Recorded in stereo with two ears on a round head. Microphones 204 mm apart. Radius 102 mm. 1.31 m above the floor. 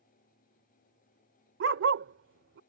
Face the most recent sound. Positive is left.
turn(degrees=-55)  # may be behind; listen again after turning